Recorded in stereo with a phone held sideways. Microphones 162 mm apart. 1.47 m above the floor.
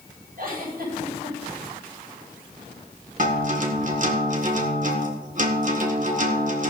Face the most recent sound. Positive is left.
turn(degrees=-55)  # may be behind; listen again after turning